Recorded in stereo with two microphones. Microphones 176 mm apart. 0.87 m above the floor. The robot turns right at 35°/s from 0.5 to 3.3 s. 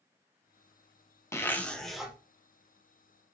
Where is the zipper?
15° left (ahead or behind), 0.5 m; by 2.1 s 5° right (ahead or behind), 0.5 m.